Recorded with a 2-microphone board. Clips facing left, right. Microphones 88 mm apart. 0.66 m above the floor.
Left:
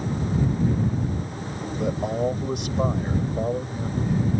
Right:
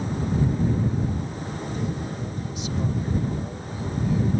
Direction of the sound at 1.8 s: 70° left (ahead or behind).